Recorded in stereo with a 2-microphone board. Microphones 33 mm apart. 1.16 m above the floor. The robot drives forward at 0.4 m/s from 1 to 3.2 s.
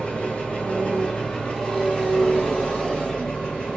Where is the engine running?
35° left (ahead or behind), 1.0 m; by 3.8 s 20° left (ahead or behind), 1.5 m.